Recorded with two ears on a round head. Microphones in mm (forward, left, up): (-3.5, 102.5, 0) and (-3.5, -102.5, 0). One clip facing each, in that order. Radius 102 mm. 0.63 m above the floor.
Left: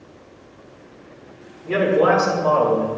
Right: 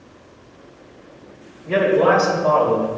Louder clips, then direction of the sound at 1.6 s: Right 1 dB; 45° left (ahead or behind).